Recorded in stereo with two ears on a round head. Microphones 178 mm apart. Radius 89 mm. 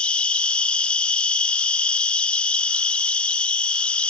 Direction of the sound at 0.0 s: 5° left (ahead or behind).